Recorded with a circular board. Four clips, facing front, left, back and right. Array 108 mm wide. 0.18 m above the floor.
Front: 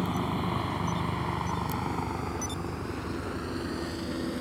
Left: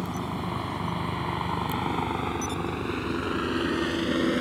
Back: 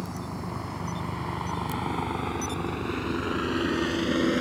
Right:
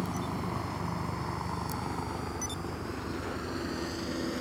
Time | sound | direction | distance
0.0 | a helicopter | 25° left | ?